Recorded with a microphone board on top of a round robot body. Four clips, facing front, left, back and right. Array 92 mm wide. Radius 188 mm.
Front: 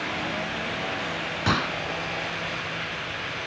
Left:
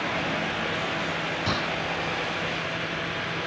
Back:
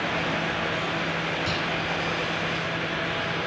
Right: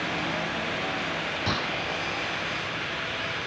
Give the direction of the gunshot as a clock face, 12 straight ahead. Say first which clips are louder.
Left 1 dB, front 2 dB; 12 o'clock.